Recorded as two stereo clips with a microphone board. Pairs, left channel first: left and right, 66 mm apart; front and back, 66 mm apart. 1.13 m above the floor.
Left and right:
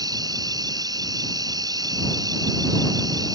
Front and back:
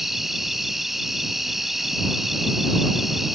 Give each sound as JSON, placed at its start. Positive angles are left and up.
{"t": 0.0, "sound": "an insect", "azimuth_deg": -95}